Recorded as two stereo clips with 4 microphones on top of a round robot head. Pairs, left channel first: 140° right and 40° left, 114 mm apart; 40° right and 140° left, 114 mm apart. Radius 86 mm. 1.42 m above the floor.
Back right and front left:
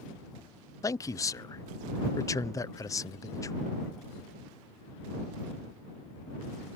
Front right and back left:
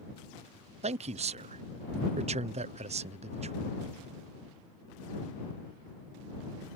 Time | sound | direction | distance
0.8 | a man speaking | 160° left | ?